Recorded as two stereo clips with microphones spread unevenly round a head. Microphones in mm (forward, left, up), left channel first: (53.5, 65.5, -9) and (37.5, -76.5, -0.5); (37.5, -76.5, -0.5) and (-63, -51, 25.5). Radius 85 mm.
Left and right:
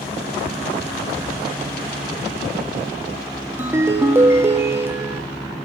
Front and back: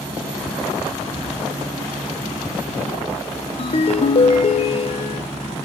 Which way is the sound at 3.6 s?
35° right.